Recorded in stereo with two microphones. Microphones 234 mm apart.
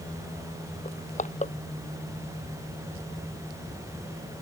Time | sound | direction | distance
0.8 | crushing | 30° left (ahead or behind) | ?